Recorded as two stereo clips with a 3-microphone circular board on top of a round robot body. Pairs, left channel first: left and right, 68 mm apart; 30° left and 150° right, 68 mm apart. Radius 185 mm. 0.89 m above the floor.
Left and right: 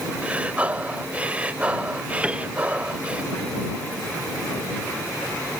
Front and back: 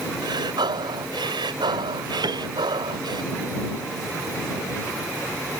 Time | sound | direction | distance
0.2 | breathing | 160° right | ?
2.2 | a piano | 165° right | ?